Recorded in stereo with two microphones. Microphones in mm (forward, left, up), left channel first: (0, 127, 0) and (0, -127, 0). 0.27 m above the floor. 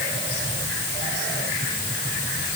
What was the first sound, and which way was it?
Only background noise.